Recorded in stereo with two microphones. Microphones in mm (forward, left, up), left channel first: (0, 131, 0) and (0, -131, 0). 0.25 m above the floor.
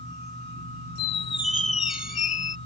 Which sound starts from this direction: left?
A squeak, at 1.0 s.